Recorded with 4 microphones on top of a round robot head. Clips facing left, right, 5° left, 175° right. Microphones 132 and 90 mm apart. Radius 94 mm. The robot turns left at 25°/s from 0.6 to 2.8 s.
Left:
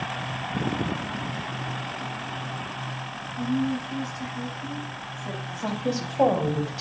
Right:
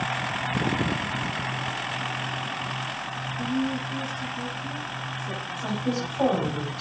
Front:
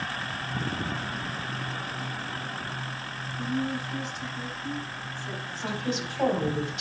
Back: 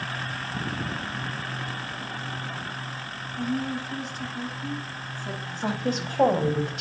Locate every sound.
3.4 s a woman speaking: 145° left, 5 m
5.6 s a woman speaking: 145° left, 4 m